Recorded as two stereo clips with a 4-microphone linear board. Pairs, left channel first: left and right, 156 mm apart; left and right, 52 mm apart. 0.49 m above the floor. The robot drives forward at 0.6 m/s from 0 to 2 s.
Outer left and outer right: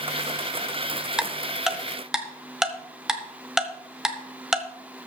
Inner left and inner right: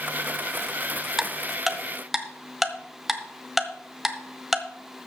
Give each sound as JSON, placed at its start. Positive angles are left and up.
{"t": 1.2, "sound": "ticking", "side_deg": -5, "distance_m": 0.8}